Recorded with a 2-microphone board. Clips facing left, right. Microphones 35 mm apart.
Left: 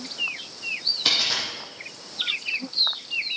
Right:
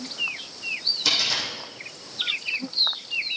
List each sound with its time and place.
1.1 s a dropped coin: 30° left (ahead or behind), 5 m